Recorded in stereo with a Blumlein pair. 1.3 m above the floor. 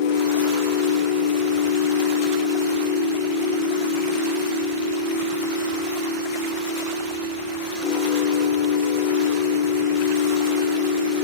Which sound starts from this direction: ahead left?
A machine running, at 0.0 s.